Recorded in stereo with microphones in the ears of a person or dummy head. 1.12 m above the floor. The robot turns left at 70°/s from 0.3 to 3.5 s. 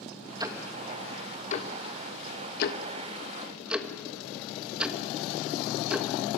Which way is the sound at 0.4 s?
30° right (ahead or behind).